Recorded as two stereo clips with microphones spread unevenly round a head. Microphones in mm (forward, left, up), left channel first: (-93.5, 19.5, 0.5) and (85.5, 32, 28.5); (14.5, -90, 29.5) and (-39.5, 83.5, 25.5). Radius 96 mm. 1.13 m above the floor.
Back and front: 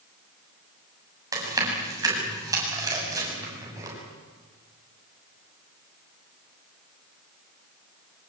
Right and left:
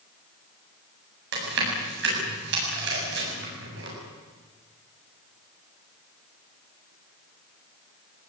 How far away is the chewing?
About 8 m.